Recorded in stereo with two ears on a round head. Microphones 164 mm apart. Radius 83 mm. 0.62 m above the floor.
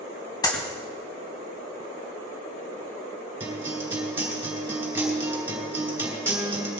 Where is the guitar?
15° right (ahead or behind), 4 m.